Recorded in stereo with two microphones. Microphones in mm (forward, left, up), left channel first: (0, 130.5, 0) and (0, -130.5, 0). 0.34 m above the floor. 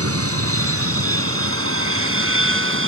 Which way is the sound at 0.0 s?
60° right (ahead or behind).